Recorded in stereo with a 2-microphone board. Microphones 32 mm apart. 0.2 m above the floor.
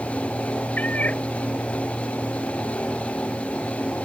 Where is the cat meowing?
50° left (ahead or behind).